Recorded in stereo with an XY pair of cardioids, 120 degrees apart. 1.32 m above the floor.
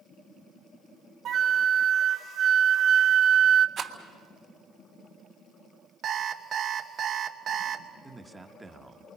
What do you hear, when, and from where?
1.2 s a flute: 50° right, 1.0 m
3.8 s a rattle: 55° right, 3 m
6.0 s an alarm clock: 55° right, 1.5 m
8.0 s a man speaking: 15° right, 1.5 m